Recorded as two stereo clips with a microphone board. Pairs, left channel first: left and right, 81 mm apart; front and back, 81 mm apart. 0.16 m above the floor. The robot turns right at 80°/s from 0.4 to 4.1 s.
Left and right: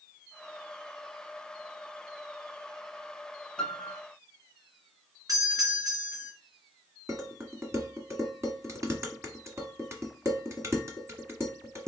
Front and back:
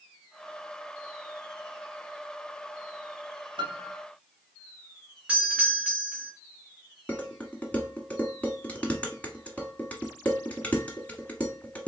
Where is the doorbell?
110° right, 2.5 m.